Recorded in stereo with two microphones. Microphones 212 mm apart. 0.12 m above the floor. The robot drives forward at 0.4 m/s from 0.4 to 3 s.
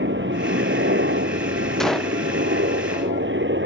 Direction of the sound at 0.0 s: 60° right (ahead or behind).